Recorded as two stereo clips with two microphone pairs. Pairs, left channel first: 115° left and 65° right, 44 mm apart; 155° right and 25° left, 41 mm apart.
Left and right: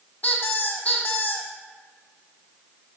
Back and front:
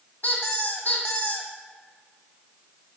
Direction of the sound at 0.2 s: 170° left.